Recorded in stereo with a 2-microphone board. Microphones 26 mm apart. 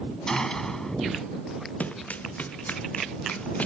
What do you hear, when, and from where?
0.3 s a gunshot: 25° left (ahead or behind)
1.8 s running footsteps: 85° left; by 3.7 s 80° left